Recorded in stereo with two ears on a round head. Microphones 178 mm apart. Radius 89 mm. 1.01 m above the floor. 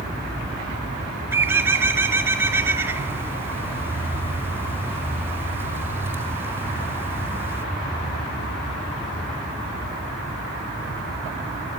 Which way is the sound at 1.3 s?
10° right (ahead or behind).